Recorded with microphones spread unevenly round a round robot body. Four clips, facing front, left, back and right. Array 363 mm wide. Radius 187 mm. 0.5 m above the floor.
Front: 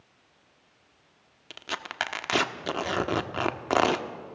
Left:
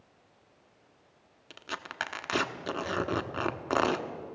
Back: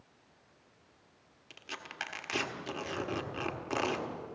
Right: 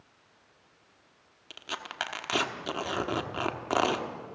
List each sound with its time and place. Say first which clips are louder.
1.5 s tearing paper: even, front 10 dB; straight ahead, 1.1 m